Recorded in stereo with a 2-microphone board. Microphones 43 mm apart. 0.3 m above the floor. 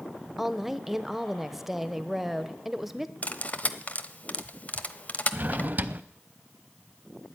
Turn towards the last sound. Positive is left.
turn(degrees=-40)  # may be behind; listen again after turning